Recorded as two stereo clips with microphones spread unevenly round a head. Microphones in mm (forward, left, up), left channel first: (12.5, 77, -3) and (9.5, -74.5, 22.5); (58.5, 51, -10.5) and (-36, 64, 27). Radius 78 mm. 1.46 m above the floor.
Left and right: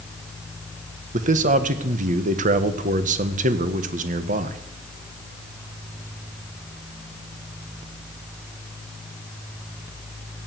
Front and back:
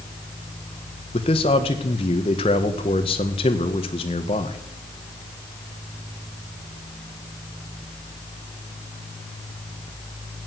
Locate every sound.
1.1 s a man speaking: 50° right, 1.5 m